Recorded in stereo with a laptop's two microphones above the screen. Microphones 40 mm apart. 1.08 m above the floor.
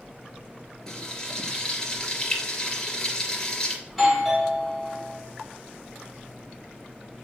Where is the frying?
20° left (ahead or behind), 3 m.